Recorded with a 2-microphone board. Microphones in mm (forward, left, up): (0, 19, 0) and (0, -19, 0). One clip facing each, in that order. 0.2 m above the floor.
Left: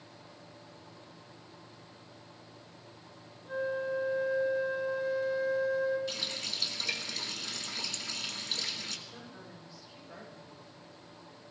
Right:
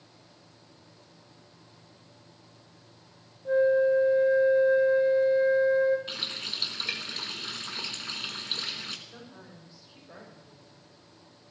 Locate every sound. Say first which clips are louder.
3.5 s a flute: right 12 dB; 40° right (ahead or behind), 2 m
6.1 s a running tap: right 2 dB; 35° right (ahead or behind), 1.4 m
9.1 s a woman speaking: even; 25° right (ahead or behind), 10 m